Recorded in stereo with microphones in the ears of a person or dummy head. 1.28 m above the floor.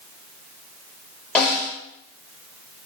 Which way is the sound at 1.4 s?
10° left (ahead or behind).